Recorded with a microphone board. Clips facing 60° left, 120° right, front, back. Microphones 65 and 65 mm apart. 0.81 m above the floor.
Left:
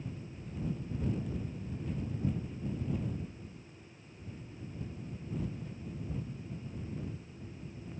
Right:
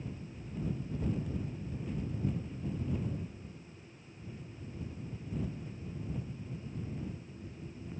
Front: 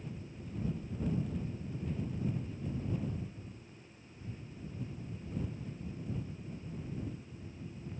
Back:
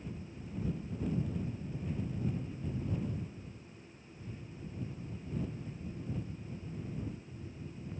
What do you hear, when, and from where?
Only background noise.